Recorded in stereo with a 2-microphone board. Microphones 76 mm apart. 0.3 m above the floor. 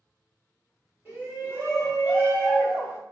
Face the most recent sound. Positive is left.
turn(degrees=-10)  # may be behind; listen again after turning